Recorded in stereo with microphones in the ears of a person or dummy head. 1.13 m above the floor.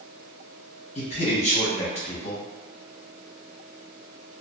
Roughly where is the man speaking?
Left.